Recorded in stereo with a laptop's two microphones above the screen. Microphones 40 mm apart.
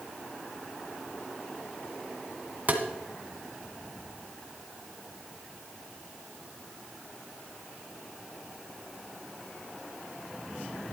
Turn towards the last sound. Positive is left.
turn(degrees=-40)  # may be behind; listen again after turning